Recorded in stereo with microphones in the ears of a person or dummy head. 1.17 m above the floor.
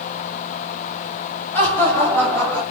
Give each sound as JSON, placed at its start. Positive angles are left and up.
{"t": 1.5, "sound": "laughter", "side_deg": 15, "distance_m": 5.0}